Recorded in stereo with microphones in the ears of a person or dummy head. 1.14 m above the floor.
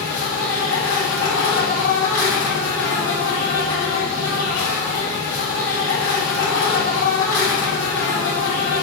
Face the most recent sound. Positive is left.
turn(degrees=70)  # may be behind; listen again after turning